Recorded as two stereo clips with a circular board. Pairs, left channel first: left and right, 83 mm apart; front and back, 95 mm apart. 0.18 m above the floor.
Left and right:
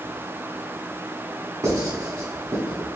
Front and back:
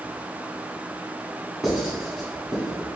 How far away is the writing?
About 1.4 m.